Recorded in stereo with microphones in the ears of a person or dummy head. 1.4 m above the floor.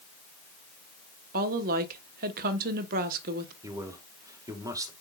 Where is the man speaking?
15° right (ahead or behind), 1.6 m.